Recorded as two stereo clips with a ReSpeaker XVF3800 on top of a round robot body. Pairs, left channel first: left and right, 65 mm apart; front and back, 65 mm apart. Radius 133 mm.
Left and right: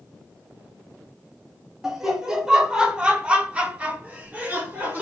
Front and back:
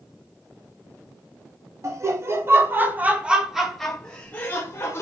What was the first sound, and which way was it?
Laughter, 170° right.